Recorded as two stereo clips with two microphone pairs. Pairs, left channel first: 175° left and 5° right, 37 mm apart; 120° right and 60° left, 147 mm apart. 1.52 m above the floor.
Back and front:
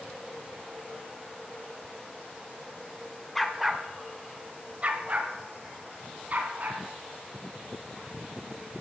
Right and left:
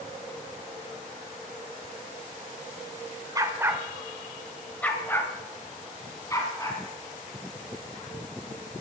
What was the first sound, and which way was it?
A dog barking, 95° left.